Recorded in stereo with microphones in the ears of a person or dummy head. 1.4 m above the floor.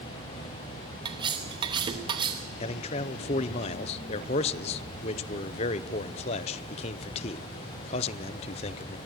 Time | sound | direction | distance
1.1 | cutlery clinking | 20° right (ahead or behind) | 1.1 m
2.6 | a man speaking | 40° left (ahead or behind) | 0.7 m